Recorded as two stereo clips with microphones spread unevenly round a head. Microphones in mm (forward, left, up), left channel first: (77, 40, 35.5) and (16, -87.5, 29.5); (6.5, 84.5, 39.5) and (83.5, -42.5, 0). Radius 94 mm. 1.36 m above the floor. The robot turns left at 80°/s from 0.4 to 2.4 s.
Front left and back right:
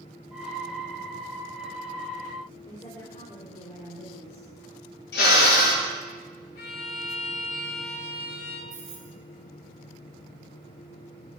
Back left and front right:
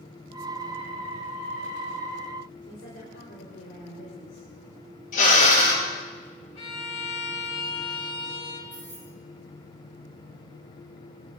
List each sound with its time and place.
2.6 s a woman speaking: 135° left, 4.5 m
5.1 s a drill: 90° left, 9 m
6.5 s a violin: 75° left, 4.5 m
8.7 s keys jangling: 160° right, 5.5 m